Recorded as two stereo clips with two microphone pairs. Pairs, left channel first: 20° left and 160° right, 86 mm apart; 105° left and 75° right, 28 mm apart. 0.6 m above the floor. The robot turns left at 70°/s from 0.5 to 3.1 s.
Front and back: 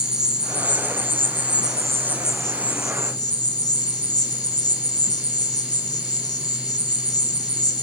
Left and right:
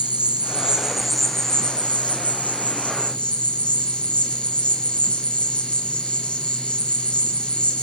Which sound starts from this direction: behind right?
An insect, at 0.0 s.